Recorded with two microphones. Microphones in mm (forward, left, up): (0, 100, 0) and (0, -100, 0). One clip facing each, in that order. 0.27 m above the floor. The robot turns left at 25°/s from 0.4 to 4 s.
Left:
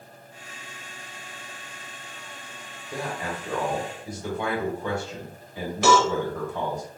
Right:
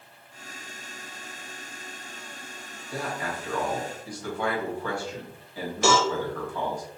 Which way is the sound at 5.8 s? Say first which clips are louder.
Left 3 dB; 55° left (ahead or behind).